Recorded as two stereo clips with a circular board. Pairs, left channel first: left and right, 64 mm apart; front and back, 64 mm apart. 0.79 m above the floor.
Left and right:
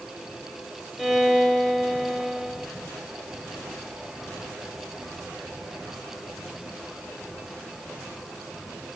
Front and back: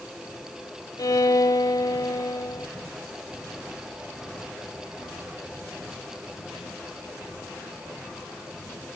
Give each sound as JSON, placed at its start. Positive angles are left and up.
{"t": 1.0, "sound": "a violin", "azimuth_deg": 0, "distance_m": 1.5}